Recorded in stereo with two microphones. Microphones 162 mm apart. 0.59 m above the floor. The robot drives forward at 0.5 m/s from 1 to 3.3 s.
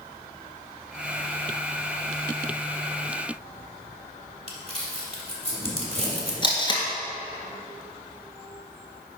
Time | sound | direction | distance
4.5 | crumpling | 40° right (ahead or behind) | 1.8 m
6.4 | tape being pulled | 30° left (ahead or behind) | 1.9 m